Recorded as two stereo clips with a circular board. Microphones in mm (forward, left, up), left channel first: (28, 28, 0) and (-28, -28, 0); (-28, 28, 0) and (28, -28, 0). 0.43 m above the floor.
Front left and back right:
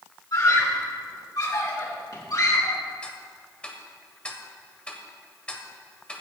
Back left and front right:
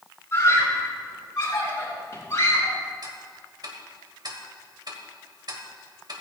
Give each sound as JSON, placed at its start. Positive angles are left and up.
{"t": 0.3, "sound": "a scream", "azimuth_deg": 80, "distance_m": 5.0}
{"t": 3.0, "sound": "ticking", "azimuth_deg": -30, "distance_m": 1.5}